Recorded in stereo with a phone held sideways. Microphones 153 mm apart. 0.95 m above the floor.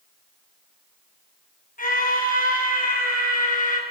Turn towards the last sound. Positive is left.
turn(degrees=60)  # may be behind; listen again after turning